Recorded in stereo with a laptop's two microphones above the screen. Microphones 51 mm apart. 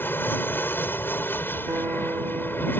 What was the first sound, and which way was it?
An aircraft, 45° left (ahead or behind).